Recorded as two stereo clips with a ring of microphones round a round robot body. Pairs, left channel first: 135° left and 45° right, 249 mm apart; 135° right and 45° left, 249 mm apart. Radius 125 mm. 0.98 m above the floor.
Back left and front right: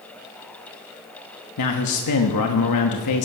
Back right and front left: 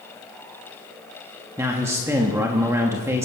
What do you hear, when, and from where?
1.6 s a man speaking: 125° left, 1.3 m